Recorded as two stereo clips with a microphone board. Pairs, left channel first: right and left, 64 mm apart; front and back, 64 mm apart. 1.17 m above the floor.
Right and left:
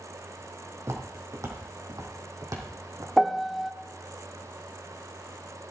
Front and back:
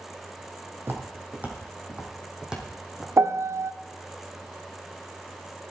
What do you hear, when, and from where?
0.8 s footsteps: 130° left, 2.5 m; by 3.1 s 95° left, 3 m
3.2 s a piano: 175° left, 0.6 m